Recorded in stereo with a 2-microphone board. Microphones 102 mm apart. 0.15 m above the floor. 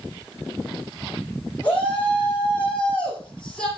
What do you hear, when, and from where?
1.6 s a shout: 15° left (ahead or behind), 9 m; by 3.7 s 10° left (ahead or behind), 6.5 m